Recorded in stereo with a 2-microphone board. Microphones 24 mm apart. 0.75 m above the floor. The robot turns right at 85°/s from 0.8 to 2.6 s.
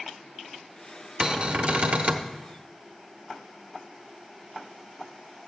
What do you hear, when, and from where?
1.2 s a cupboard door: 145° right, 0.7 m; by 2.3 s 50° right, 0.7 m